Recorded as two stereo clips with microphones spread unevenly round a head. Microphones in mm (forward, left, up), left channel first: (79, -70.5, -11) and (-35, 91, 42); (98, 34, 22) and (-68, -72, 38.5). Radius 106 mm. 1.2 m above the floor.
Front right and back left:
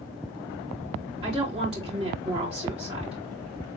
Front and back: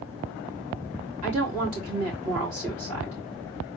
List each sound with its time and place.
1.2 s a woman speaking: 165° right, 3.5 m